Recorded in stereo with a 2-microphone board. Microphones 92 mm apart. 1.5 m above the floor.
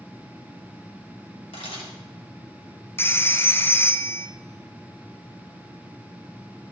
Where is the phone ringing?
25° left (ahead or behind), 0.5 m.